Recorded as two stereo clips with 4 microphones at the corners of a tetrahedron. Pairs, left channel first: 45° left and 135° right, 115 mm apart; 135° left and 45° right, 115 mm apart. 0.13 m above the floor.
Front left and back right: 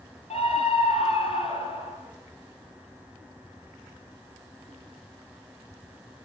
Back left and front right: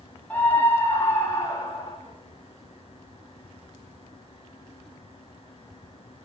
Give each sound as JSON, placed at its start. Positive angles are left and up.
{"t": 0.3, "sound": "a scream", "azimuth_deg": 60, "distance_m": 5.0}